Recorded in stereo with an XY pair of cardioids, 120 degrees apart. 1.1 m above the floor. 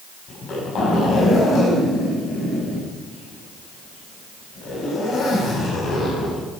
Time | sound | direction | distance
0.3 | a zipper | 50° left | 6 m